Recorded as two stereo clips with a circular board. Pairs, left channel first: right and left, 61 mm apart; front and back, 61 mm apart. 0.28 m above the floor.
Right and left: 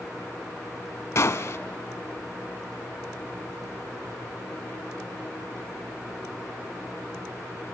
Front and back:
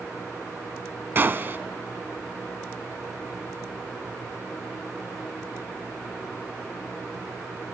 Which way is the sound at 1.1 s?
125° right.